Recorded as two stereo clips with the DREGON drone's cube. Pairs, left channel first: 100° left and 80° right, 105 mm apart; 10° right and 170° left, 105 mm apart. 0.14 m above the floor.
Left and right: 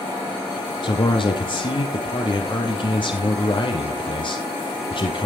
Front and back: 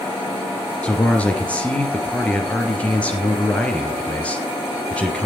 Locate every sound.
0.8 s a man speaking: 65° left, 3 m